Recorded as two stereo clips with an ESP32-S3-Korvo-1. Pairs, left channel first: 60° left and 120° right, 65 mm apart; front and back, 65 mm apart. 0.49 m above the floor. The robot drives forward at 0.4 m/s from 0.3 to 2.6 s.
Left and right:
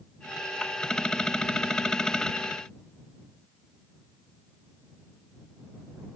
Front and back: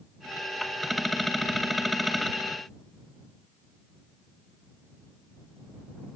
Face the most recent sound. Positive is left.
No sound to turn to.